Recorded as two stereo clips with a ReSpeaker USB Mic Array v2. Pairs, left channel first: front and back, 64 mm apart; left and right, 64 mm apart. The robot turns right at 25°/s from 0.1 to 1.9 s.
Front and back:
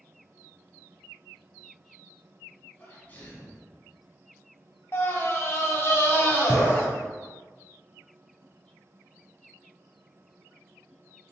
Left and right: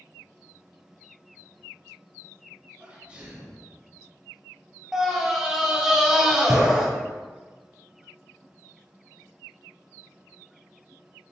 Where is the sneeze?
35° right, 1.6 m.